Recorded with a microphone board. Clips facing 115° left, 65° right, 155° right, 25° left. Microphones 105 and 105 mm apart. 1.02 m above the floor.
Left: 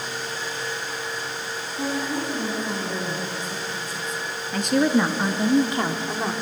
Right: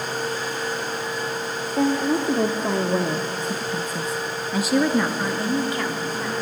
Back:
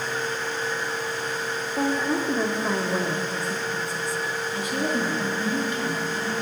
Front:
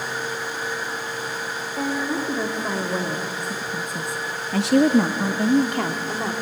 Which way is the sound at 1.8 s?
75° right.